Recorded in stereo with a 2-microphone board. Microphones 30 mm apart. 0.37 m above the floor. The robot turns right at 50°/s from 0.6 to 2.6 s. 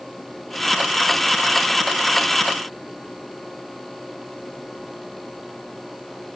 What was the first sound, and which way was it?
Only background noise.